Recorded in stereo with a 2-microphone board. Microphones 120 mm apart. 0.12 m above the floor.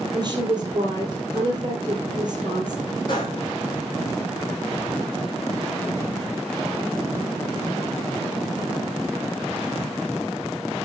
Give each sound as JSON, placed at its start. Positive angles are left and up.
{"t": 0.1, "sound": "a woman speaking", "side_deg": -40, "distance_m": 2.5}
{"t": 3.1, "sound": "a gunshot", "side_deg": 40, "distance_m": 3.5}